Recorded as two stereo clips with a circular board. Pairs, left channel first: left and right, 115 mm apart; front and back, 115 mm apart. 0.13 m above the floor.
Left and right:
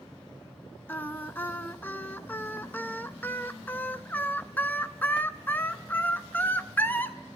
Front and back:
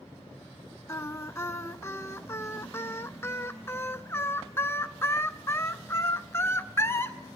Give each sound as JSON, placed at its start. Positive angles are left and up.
{"t": 0.9, "sound": "singing", "azimuth_deg": 40, "distance_m": 0.6}